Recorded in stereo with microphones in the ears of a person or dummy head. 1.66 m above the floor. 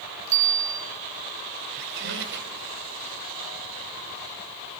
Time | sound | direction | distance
0.3 | a bicycle bell | 40° right (ahead or behind) | 5.5 m
1.7 | a squeak | 65° right (ahead or behind) | 4.5 m